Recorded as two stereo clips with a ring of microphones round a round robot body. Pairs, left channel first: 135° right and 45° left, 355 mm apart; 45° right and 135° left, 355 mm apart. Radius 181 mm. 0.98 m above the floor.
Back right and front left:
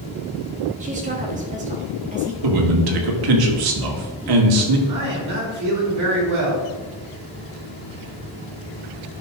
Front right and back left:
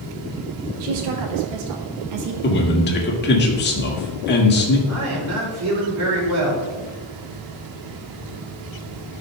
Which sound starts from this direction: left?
A man speaking, at 4.9 s.